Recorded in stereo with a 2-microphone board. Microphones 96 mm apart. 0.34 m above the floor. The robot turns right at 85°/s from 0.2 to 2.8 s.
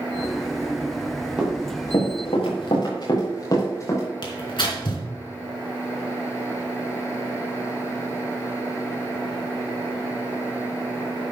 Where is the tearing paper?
60° left (ahead or behind), 3.5 m.